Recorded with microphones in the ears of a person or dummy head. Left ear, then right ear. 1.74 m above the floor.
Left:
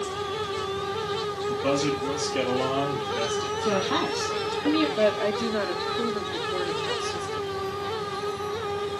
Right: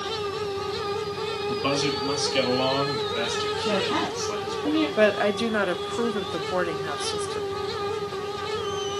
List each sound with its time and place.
1.5 s a man speaking: 45° right (ahead or behind), 1.9 m; by 4.7 s 70° right (ahead or behind), 4 m
3.6 s a woman speaking: 25° left (ahead or behind), 2.5 m
5.0 s a woman speaking: 45° right (ahead or behind), 0.9 m